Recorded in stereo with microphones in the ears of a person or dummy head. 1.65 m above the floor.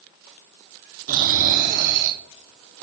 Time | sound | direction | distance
1.1 | snoring | 50° right (ahead or behind) | 1.5 m